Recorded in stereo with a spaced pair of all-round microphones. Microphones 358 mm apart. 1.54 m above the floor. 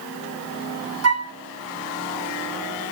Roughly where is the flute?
Right.